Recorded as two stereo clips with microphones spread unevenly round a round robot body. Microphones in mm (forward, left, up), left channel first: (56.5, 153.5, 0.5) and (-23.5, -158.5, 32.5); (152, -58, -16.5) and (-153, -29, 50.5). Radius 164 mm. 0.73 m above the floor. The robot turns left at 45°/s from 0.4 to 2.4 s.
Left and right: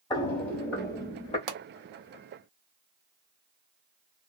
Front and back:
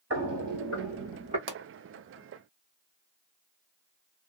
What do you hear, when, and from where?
0.1 s footsteps: 155° left, 0.9 m; by 1.4 s 150° left, 1.2 m
1.5 s a pop: 130° right, 0.8 m; by 1.6 s 135° right, 0.8 m